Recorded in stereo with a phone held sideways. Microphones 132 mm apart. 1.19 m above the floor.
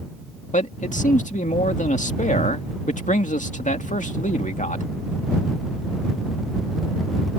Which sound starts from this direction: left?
A man speaking, at 0.5 s.